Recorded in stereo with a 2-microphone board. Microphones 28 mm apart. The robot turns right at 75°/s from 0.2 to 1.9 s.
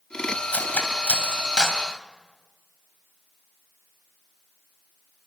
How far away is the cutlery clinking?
About 3.5 m.